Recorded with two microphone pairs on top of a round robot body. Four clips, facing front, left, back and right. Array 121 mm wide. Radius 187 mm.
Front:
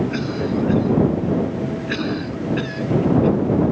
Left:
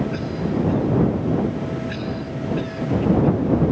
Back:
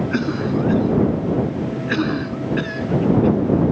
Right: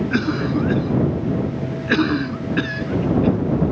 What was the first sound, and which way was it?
A cough, 105° right.